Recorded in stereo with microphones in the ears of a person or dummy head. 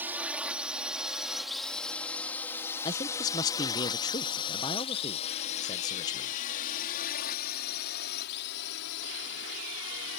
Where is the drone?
10° right (ahead or behind); by 10.2 s 65° left (ahead or behind).